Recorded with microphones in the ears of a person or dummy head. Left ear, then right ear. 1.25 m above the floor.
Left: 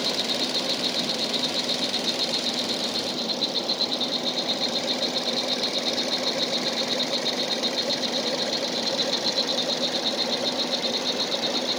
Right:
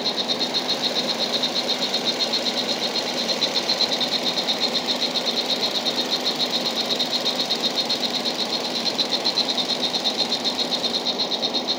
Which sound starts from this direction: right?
An insect, at 0.0 s.